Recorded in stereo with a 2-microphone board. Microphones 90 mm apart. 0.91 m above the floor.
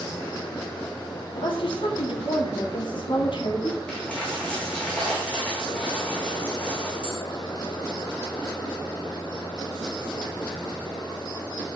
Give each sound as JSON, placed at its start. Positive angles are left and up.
{"t": 1.3, "sound": "a woman speaking", "side_deg": 70, "distance_m": 3.0}
{"t": 3.9, "sound": "a dropped coin", "side_deg": 15, "distance_m": 4.0}